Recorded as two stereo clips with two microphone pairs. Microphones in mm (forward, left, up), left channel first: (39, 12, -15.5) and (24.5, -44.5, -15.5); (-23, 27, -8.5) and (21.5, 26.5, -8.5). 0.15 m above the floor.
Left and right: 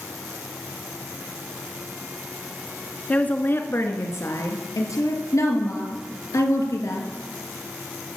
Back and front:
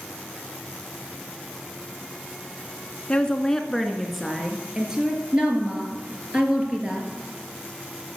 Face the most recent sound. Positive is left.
turn(degrees=60)